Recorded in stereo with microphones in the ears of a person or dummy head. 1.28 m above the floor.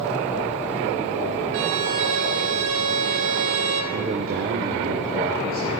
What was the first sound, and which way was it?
A violin, 70° right (ahead or behind).